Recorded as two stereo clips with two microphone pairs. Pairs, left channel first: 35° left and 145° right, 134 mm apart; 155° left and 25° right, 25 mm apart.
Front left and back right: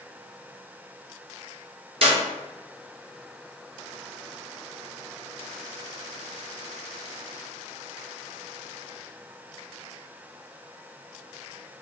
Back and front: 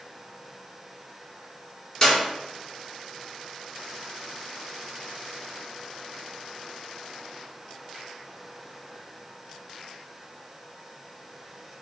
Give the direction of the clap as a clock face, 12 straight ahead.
5 o'clock.